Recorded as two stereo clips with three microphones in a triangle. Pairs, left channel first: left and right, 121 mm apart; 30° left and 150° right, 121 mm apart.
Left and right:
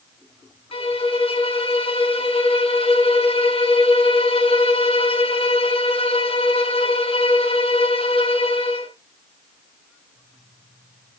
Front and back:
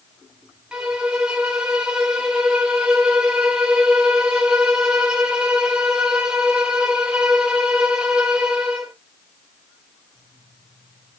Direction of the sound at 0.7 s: 130° left.